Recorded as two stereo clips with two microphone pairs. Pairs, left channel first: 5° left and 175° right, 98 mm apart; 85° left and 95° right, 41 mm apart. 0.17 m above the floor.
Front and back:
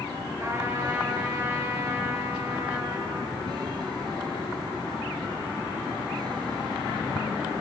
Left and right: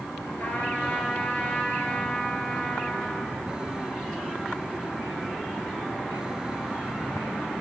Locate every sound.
0.4 s a trumpet: 130° left, 1.7 m